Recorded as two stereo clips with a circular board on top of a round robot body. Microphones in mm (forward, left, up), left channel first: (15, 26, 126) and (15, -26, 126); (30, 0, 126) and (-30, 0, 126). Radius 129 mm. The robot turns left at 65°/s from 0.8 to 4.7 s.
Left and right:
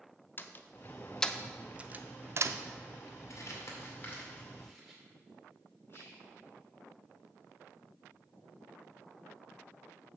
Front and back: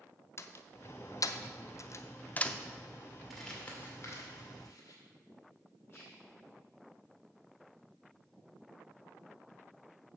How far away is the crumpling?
About 2.5 m.